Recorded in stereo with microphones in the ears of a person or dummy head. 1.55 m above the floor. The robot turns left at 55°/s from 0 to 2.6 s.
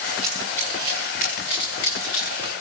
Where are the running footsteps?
5° right (ahead or behind), 9.5 m; by 2.5 s 75° left (ahead or behind), 8 m.